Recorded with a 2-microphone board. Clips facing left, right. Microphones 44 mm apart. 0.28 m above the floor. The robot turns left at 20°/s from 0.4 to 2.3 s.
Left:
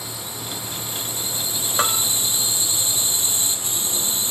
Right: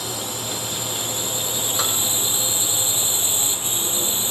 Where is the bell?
35° left (ahead or behind); by 2.0 s 30° left (ahead or behind).